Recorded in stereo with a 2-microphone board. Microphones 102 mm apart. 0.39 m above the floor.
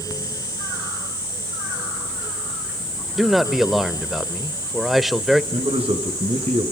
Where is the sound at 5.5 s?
65° right (ahead or behind), 5 m.